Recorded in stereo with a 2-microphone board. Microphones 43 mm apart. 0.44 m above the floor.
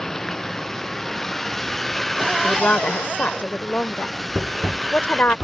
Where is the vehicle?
10° left (ahead or behind); by 5.5 s centre (ahead or behind).